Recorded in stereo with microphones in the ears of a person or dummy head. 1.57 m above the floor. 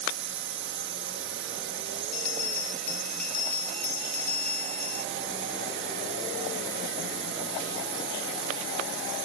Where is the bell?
10° left (ahead or behind).